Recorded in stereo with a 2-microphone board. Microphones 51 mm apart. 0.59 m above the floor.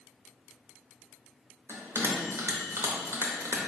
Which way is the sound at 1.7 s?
70° right (ahead or behind).